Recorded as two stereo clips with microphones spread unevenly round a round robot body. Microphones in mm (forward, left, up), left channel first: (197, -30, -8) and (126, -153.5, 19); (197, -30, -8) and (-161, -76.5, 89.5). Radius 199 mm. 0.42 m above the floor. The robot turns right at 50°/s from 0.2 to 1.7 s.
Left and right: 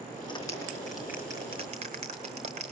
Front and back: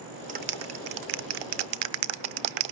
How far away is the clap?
About 1.1 m.